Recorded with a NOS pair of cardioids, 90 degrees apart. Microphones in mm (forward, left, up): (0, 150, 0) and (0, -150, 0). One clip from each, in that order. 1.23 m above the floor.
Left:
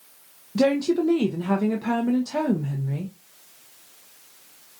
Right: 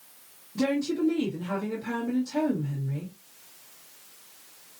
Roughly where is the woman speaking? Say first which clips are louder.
Left 6 dB; left.